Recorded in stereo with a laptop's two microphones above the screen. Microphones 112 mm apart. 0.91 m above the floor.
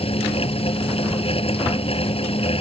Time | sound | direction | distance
0.0 | a fan | 60° left (ahead or behind) | ?